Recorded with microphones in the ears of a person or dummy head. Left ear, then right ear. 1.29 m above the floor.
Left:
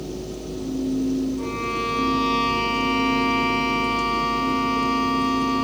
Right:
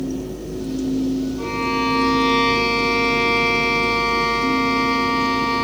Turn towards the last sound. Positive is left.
turn(degrees=-10)  # may be behind; listen again after turning